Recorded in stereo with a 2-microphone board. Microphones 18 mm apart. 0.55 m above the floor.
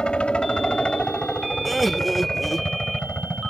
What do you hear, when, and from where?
0.0 s a helicopter: 65° left (ahead or behind)
1.6 s laughter: centre (ahead or behind)